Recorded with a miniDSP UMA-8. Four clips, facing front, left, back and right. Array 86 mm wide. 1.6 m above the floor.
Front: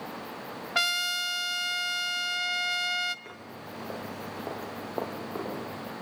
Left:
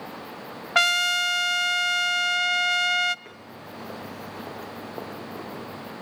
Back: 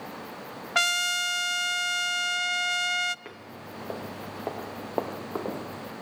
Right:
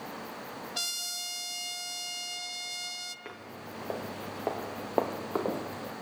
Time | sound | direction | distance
0.8 | a trumpet | 100° left | 0.6 m
3.2 | footsteps | 145° right | 1.6 m